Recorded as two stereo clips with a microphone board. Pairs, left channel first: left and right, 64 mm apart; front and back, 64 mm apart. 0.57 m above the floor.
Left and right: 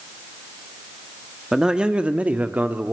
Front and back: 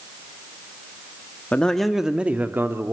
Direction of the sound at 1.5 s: 30° right.